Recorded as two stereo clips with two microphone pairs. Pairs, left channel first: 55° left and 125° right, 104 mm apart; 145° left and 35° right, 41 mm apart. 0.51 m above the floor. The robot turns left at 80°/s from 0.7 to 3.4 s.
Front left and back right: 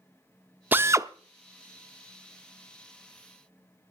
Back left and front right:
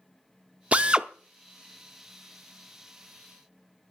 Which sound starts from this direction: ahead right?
A drill, at 0.7 s.